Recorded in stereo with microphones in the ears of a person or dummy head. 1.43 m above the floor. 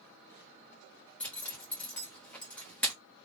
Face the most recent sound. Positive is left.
turn(degrees=10)  # may be behind; listen again after turning